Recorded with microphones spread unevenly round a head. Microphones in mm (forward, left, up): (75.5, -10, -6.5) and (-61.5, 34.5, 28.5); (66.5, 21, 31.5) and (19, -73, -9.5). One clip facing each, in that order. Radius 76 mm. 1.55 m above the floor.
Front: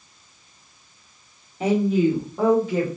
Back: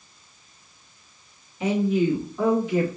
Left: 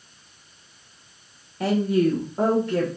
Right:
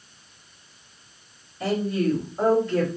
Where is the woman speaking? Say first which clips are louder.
Front 2 dB, left 3 dB; 40° left, 1.4 m; by 2.9 s 35° left, 2 m.